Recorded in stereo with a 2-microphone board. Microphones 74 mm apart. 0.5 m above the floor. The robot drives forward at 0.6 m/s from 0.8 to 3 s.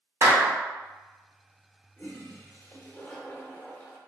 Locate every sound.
0.2 s a clap: 45° right (ahead or behind), 0.8 m
2.0 s a toilet flushing: 30° left (ahead or behind), 0.7 m; by 4.0 s 20° left (ahead or behind), 1.0 m